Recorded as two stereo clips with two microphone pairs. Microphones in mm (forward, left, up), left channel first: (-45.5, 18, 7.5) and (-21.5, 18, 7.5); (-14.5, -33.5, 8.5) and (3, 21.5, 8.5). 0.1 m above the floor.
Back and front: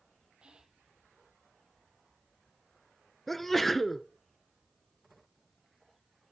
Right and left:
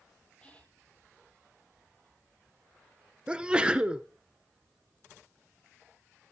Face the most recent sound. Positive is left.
turn(degrees=115)